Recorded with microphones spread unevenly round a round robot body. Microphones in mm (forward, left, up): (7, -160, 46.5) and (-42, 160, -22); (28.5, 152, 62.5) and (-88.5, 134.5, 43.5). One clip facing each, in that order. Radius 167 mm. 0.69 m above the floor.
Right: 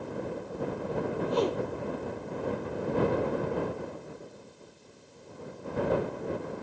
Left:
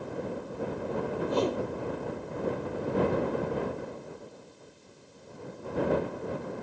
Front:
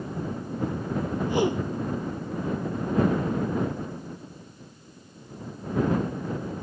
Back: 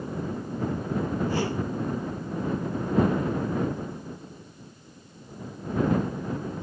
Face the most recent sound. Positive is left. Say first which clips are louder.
# even, front 3 dB
turn(degrees=80)